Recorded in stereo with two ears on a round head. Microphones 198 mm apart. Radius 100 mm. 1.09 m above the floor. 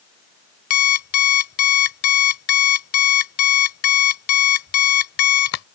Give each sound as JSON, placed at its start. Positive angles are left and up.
{"t": 0.7, "sound": "an alarm clock", "side_deg": 75}